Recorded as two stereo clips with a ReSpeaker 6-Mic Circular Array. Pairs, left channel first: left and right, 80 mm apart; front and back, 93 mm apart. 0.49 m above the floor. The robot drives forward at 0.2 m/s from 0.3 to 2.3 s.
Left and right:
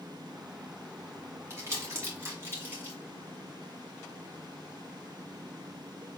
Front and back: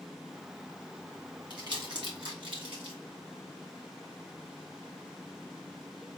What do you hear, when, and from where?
1.5 s crumpling: 145° right, 2 m